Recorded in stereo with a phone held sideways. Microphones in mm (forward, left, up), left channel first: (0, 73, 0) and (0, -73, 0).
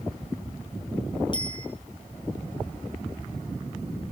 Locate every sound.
1.3 s a bicycle bell: 35° left (ahead or behind), 5 m